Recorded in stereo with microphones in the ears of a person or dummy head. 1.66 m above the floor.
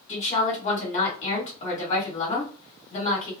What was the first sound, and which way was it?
A woman speaking, 35° left (ahead or behind).